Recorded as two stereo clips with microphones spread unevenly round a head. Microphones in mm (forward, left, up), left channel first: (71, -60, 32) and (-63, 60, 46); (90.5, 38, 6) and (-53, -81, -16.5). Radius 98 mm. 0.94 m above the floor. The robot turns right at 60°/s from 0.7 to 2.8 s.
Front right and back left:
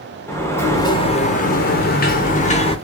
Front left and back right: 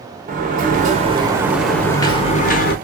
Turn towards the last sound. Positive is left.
turn(degrees=15)